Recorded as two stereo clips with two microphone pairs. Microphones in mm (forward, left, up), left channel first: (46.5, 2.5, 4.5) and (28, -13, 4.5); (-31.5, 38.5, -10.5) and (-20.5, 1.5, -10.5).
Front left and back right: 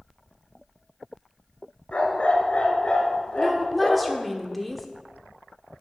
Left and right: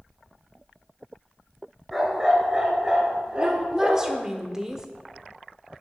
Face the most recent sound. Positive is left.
turn(degrees=-35)